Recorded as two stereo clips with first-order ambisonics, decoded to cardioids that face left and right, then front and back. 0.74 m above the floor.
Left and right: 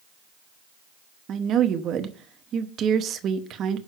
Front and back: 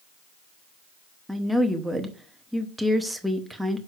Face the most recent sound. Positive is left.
turn(degrees=-90)